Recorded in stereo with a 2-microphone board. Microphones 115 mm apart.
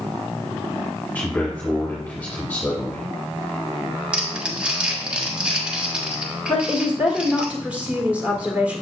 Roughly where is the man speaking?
Centre.